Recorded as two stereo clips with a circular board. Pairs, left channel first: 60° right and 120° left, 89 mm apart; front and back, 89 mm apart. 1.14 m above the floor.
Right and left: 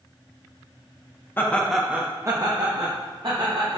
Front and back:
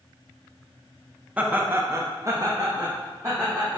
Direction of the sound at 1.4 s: 110° right.